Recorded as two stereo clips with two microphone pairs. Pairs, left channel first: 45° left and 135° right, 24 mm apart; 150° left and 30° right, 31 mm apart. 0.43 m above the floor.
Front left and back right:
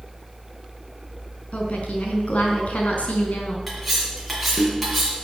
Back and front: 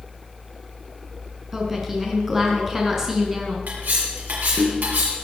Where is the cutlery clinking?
40° right, 4.5 m.